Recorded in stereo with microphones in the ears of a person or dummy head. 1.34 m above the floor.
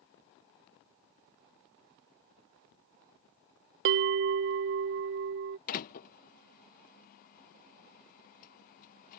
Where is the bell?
50° right (ahead or behind).